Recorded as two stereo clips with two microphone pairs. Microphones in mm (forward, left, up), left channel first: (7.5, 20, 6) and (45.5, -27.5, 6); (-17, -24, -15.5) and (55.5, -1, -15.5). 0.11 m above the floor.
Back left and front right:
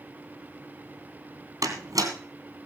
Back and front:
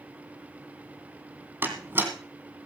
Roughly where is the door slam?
Ahead right.